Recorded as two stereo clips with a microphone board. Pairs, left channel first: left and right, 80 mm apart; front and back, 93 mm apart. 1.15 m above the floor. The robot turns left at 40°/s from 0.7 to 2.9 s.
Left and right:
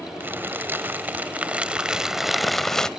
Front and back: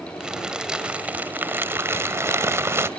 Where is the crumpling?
110° right, 1.0 m; by 2.9 s 165° left, 1.0 m.